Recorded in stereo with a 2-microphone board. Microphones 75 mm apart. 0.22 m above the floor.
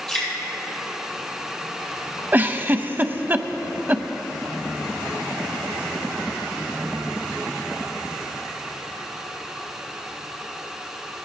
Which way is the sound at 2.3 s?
25° right (ahead or behind).